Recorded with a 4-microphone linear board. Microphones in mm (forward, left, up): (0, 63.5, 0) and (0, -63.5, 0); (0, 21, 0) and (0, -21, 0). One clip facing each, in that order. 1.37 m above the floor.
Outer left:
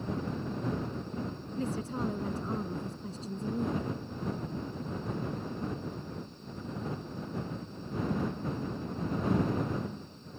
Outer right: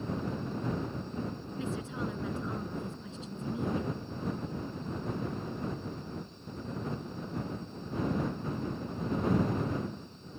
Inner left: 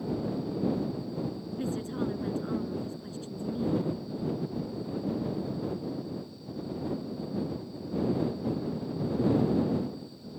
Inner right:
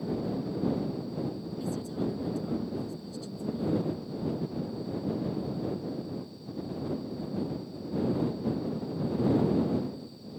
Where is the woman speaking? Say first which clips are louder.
Outer left 3 dB, inner left 2 dB; 40° left (ahead or behind).